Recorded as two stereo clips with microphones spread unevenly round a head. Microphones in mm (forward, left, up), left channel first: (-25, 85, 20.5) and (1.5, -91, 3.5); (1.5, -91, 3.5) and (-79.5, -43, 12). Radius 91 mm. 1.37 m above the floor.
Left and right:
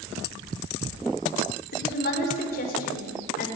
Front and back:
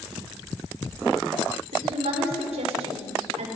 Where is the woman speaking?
135° left, 5 m; by 3.5 s 140° left, 6.5 m.